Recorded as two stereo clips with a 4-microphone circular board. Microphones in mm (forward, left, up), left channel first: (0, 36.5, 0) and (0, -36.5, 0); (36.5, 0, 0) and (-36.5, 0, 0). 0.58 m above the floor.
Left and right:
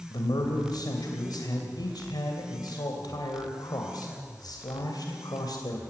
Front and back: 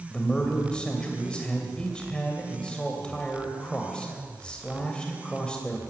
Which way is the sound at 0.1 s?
75° left.